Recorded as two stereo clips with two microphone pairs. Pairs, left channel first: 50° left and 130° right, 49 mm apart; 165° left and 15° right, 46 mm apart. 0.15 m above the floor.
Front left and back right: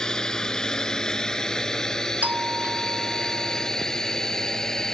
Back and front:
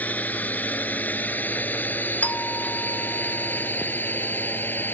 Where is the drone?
120° left; by 4.9 s 125° left.